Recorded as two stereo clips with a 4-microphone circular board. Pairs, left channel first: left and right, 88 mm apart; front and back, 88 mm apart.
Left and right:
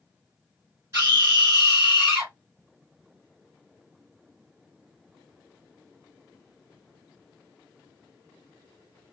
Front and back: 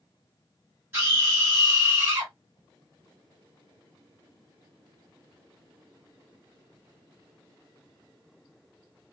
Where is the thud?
I don't hear a thud.